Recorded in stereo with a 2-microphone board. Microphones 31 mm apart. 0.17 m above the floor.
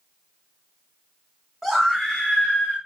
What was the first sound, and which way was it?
A scream, centre (ahead or behind).